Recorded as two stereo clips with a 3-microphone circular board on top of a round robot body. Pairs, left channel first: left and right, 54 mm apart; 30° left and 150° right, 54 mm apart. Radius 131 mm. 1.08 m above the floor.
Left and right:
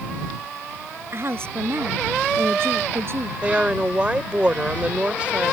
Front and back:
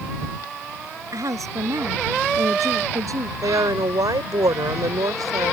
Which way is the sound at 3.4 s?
160° right.